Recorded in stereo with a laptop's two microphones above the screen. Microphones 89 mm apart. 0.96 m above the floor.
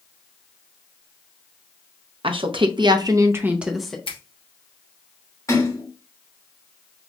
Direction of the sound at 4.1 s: 85° left.